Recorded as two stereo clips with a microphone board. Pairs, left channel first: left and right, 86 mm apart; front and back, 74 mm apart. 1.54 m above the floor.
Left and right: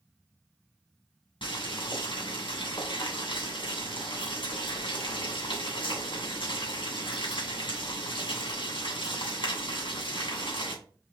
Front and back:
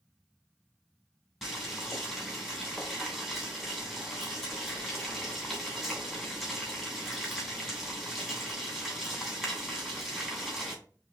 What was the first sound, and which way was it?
Boiling, 90° left.